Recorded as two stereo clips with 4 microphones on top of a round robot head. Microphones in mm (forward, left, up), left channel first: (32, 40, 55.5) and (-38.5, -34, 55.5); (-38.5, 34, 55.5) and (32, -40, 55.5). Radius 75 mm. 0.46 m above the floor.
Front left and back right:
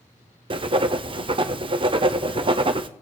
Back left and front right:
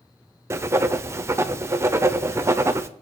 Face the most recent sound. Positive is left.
turn(degrees=-110)